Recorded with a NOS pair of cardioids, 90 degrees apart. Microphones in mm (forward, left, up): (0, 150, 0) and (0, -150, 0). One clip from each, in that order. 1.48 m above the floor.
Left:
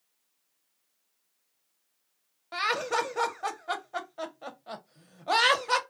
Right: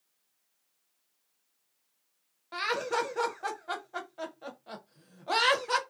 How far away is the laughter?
About 0.8 m.